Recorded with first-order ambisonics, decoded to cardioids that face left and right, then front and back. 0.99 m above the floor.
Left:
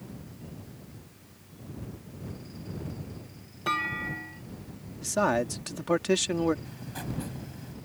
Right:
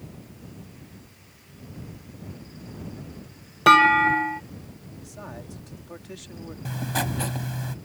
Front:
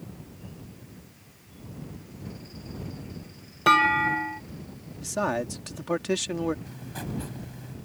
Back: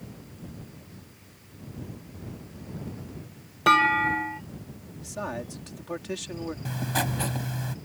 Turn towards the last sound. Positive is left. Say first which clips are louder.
# right 12 dB, back 10 dB
turn(degrees=-135)